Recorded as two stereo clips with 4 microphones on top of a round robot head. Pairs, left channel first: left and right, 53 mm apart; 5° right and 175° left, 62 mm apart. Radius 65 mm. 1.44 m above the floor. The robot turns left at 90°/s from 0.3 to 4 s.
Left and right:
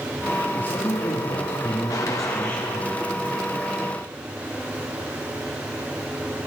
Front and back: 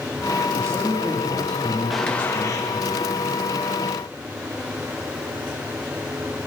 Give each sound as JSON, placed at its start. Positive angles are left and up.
{"t": 0.5, "sound": "a man speaking", "azimuth_deg": 150, "distance_m": 4.0}
{"t": 1.9, "sound": "a gunshot", "azimuth_deg": 85, "distance_m": 3.0}